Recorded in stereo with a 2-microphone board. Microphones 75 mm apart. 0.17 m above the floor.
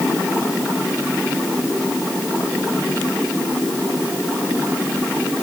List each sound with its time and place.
Only background noise.